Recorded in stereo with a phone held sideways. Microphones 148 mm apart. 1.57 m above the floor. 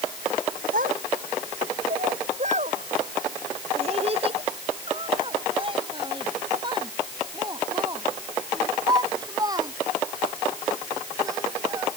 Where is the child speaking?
75° right (ahead or behind); by 11.9 s 20° right (ahead or behind).